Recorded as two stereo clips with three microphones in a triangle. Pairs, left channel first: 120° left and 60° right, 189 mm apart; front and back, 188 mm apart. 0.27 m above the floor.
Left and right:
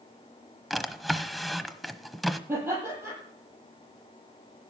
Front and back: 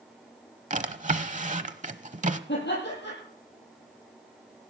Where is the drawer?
150° right, 0.8 m.